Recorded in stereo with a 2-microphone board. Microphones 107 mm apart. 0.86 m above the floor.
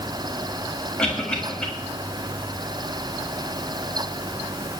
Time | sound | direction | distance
1.0 | a cough | 10° left (ahead or behind) | 6 m